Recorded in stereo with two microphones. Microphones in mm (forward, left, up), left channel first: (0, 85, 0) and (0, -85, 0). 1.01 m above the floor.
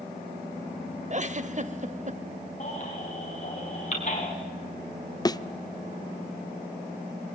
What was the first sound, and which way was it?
A giggle, 45° right (ahead or behind).